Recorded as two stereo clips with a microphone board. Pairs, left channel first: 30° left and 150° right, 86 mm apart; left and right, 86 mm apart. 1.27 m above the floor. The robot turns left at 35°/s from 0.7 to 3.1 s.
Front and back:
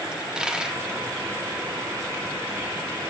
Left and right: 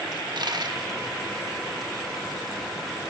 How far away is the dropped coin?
About 1.2 m.